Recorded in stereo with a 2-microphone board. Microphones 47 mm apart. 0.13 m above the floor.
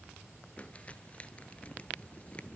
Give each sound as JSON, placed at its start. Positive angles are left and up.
{"t": 0.6, "sound": "crumpling", "side_deg": 25, "distance_m": 1.0}